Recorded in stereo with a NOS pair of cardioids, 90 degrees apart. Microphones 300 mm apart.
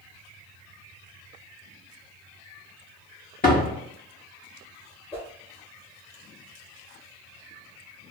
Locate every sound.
3.4 s a door slam: 30° left, 1.6 m
5.1 s a whoosh: 20° left, 1.7 m